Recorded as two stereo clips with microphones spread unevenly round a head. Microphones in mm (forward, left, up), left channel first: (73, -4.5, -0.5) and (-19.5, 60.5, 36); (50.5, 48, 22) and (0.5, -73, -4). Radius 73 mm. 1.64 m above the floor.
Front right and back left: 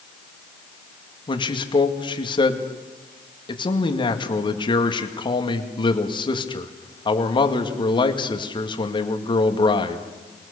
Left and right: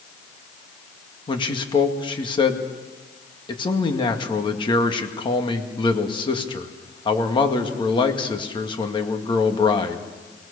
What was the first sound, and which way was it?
A man speaking, 15° left.